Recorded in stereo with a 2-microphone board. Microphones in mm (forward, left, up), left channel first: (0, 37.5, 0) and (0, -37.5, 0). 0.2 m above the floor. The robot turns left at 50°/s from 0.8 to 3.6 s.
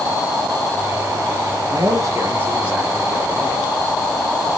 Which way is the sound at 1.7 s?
115° right.